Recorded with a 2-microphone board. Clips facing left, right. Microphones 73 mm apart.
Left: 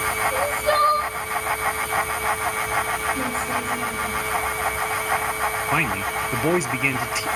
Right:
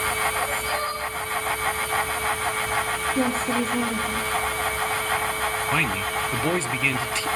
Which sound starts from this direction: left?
Crying, at 0.3 s.